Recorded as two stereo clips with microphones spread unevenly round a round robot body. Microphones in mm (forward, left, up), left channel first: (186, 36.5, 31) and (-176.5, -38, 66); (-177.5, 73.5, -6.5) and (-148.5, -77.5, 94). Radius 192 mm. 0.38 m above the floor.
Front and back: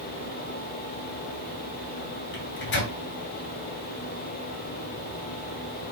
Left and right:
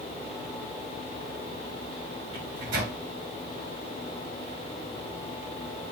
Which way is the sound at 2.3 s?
35° right.